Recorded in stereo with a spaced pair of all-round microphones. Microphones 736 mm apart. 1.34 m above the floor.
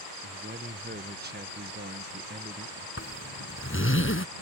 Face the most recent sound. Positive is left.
turn(degrees=15)  # may be behind; listen again after turning